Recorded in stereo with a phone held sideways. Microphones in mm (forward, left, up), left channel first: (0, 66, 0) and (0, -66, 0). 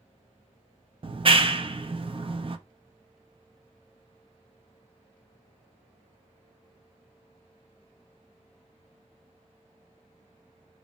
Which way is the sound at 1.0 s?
45° right (ahead or behind).